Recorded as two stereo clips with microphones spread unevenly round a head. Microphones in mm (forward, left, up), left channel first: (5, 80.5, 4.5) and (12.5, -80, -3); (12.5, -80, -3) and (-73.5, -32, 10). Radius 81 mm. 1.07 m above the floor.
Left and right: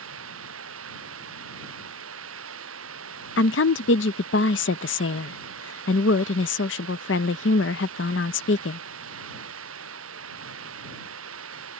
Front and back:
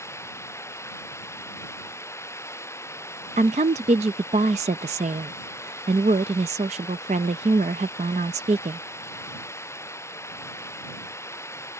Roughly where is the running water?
Right.